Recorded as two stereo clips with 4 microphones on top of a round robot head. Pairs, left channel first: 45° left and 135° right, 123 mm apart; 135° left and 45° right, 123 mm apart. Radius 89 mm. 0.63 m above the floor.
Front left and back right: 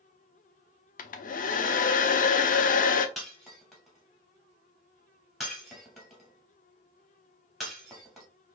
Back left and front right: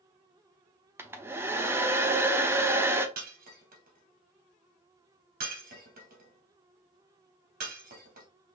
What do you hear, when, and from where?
1.0 s a hair dryer: 30° left, 0.6 m
3.2 s breaking glass: 45° right, 1.9 m